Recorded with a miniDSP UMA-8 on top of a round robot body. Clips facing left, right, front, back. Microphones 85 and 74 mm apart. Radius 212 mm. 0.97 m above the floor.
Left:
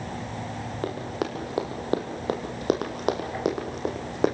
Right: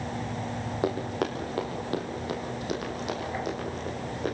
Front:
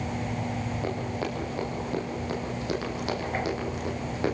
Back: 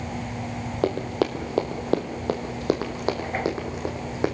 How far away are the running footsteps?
About 1.4 m.